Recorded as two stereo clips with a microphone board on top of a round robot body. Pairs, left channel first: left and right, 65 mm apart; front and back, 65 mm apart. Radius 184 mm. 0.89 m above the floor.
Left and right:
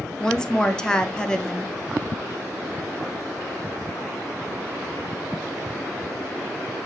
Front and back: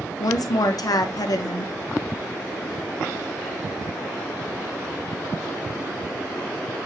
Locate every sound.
0.2 s a woman speaking: 10° left, 0.7 m